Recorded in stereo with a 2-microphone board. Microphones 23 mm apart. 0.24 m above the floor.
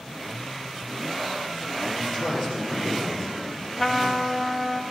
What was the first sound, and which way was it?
A man speaking, 5° left (ahead or behind).